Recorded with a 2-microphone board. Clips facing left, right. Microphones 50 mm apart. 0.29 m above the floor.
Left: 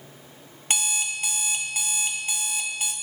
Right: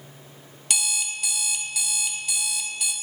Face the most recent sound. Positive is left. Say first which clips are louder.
# left 1 dB
turn(degrees=30)  # may be behind; listen again after turning